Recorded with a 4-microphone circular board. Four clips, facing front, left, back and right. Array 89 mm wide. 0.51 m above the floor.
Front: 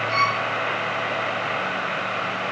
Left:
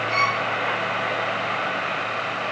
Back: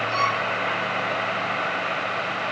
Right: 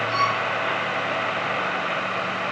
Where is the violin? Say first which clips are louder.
Even, front 2 dB; 55° left, 4.5 m.